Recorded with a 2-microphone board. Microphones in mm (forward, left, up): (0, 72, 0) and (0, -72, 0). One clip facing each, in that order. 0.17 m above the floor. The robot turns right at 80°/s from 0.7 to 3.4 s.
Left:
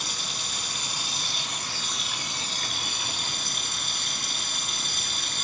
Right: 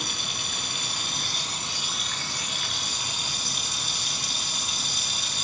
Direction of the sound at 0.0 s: 105° right.